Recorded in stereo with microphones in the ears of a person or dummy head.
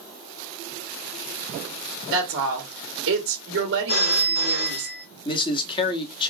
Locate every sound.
2.1 s a woman speaking: 70° right (ahead or behind), 1.1 m
3.9 s a phone ringing: 50° left (ahead or behind), 0.7 m
5.2 s a man speaking: 30° left (ahead or behind), 0.8 m